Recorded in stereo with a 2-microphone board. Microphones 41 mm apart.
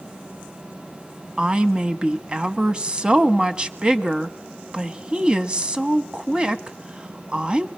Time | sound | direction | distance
1.4 | a woman speaking | 20° right (ahead or behind) | 1.1 m